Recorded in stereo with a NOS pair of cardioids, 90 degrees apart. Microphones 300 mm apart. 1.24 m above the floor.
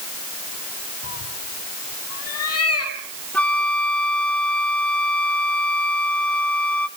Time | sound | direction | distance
1.0 | a cat meowing | 55° left | 5 m
3.3 | a flute | 5° left | 1.5 m